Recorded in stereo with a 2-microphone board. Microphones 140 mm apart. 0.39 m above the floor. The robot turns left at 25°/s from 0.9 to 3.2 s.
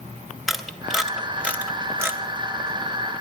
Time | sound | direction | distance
0.5 | a camera shutter | centre (ahead or behind) | 1.4 m